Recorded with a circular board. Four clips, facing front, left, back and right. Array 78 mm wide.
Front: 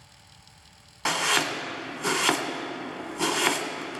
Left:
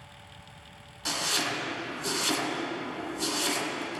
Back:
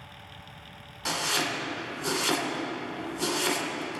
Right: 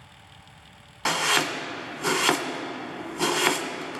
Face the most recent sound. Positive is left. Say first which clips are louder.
# right 7 dB, front 4 dB
turn(degrees=-55)